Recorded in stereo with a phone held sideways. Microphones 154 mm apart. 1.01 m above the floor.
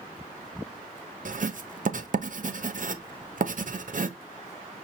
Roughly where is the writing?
Right.